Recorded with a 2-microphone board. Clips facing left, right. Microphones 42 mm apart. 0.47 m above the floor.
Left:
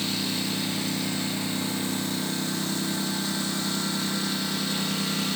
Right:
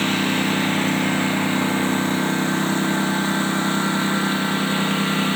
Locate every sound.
0.0 s a lawn mower: 50° right (ahead or behind); by 5.4 s 40° right (ahead or behind)